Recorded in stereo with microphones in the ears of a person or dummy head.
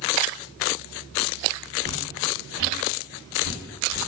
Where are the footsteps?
25° left (ahead or behind), 1.9 m; by 4.0 s 5° left (ahead or behind), 1.8 m.